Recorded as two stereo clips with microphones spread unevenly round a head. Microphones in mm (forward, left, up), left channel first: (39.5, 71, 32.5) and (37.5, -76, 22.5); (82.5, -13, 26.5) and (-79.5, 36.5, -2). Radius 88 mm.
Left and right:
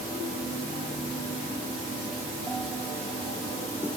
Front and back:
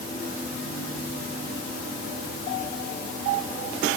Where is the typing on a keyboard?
I don't hear typing on a keyboard.